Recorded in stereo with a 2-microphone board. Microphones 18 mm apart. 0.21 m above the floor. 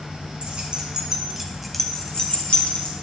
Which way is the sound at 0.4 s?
60° right (ahead or behind).